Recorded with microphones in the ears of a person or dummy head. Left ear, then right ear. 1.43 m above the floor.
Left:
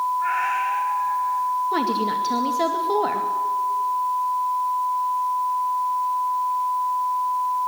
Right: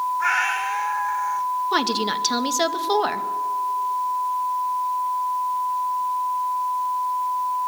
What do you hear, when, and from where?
0.2 s a cat meowing: 45° right (ahead or behind), 1.4 m
1.7 s a woman speaking: 45° right (ahead or behind), 1.9 m